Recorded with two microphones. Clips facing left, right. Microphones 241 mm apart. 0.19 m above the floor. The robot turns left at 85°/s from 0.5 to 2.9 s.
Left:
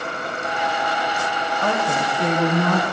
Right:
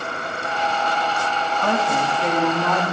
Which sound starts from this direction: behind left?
A woman speaking, at 1.6 s.